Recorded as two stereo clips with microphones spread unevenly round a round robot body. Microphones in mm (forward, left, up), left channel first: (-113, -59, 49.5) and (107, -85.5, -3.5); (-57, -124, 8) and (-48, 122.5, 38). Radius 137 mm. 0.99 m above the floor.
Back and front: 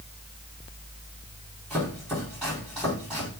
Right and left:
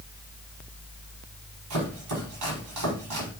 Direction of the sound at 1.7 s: 85° left.